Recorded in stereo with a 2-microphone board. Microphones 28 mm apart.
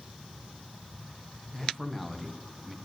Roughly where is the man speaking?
Centre.